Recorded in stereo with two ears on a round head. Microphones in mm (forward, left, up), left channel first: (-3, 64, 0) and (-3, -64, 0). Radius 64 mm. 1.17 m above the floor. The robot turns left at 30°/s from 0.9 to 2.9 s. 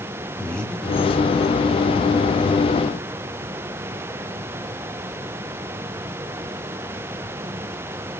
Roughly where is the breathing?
Centre.